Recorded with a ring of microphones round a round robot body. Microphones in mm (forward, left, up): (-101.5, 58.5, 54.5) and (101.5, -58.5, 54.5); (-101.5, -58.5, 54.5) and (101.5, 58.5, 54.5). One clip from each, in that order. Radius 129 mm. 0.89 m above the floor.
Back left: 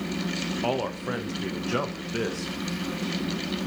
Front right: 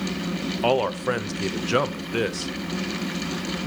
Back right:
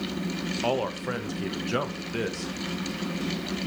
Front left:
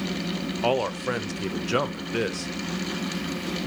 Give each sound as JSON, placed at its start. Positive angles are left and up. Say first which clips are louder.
{"t": 0.6, "sound": "a man speaking", "louder": "front right 8 dB, front left 4 dB", "azimuth_deg": -20, "distance_m": 1.1}